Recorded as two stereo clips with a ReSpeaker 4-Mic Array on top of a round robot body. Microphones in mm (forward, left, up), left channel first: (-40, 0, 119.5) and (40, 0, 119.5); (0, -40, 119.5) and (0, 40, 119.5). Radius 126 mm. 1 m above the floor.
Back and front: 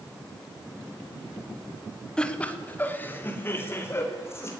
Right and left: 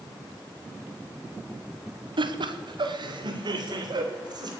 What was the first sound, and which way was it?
Laughter, 100° left.